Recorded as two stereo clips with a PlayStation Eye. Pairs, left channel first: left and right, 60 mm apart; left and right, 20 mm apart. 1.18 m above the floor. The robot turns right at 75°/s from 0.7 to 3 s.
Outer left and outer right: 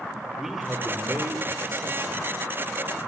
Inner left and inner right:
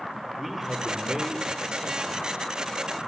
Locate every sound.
0.4 s a man speaking: 170° right, 3 m; by 3.0 s straight ahead, 3 m